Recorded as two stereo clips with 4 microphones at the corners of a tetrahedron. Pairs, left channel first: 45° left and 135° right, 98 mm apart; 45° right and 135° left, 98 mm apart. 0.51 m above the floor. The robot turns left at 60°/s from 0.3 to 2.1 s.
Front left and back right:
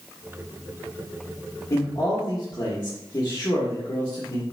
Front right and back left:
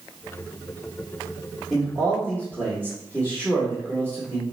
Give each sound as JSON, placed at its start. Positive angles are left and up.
{"t": 1.7, "sound": "a man speaking", "azimuth_deg": 40, "distance_m": 1.0}